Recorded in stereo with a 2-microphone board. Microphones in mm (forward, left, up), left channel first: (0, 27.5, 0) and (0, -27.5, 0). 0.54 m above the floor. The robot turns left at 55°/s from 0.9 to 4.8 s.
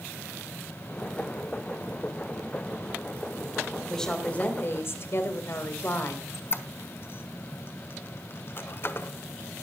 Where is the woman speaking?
175° left, 2.5 m; by 6.2 s 125° left, 2.5 m.